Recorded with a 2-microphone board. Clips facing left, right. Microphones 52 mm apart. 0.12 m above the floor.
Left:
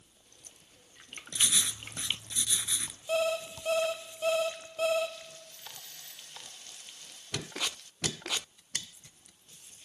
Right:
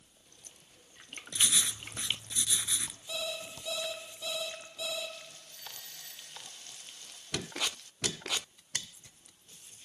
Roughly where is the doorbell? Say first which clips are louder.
Even; right.